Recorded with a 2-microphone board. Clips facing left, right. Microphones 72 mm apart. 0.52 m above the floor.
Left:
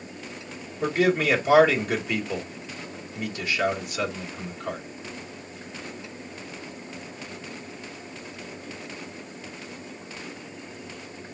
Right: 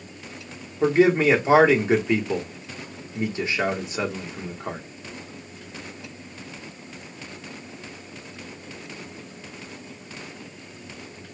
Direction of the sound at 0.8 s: 25° right (ahead or behind).